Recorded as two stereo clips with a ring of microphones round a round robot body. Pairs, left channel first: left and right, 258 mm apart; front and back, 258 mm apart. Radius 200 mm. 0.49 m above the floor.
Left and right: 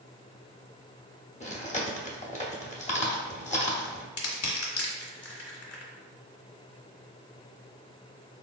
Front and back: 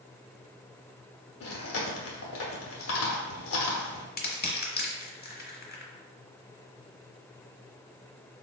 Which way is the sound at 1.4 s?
25° left.